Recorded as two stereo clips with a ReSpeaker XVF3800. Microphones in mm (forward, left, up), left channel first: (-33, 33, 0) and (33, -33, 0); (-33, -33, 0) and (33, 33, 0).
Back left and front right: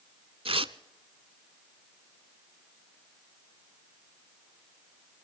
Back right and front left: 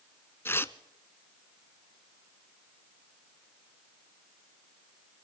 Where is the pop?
No pop in this recording.